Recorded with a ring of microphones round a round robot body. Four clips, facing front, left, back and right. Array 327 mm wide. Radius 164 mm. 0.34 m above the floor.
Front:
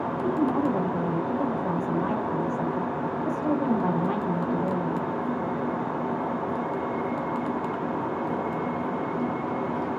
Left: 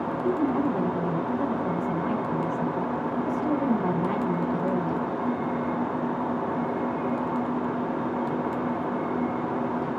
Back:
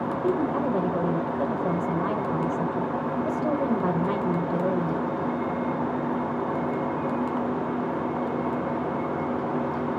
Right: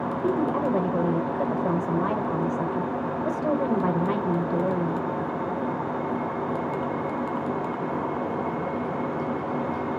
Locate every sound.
0.2 s a woman speaking: 125° right, 1.2 m